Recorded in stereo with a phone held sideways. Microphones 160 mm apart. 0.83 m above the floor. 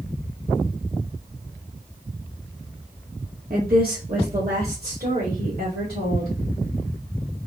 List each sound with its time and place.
3.5 s a woman speaking: 60° right (ahead or behind), 1.0 m; by 6.3 s 75° right (ahead or behind), 2.5 m